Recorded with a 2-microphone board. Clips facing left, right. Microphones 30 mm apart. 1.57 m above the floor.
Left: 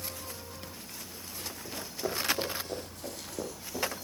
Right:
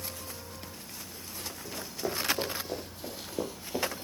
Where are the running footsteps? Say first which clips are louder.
Right 1 dB; centre (ahead or behind), 4.5 m; by 4.0 s 35° right (ahead or behind), 2 m.